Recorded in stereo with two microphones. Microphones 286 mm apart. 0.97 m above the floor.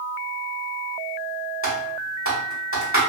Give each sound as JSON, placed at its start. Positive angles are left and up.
{"t": 1.6, "sound": "typing on a keyboard", "side_deg": 45, "distance_m": 1.2}